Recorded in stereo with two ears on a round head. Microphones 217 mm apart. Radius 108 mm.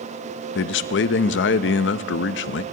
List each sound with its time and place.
0.6 s a man speaking: 50° left (ahead or behind), 0.5 m